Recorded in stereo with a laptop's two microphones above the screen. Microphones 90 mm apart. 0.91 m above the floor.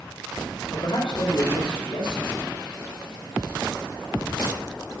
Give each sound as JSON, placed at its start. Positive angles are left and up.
{"t": 0.7, "sound": "a man speaking", "side_deg": 75, "distance_m": 3.0}